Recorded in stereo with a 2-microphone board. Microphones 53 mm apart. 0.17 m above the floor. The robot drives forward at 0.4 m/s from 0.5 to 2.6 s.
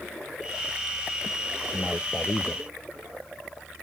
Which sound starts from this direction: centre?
A man speaking, at 1.7 s.